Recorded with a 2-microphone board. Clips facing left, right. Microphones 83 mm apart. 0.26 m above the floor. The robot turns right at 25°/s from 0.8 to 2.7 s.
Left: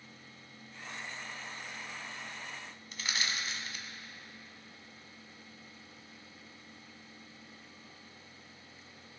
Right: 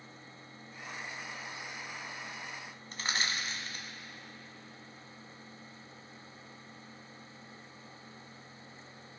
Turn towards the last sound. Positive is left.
turn(degrees=-40)  # may be behind; listen again after turning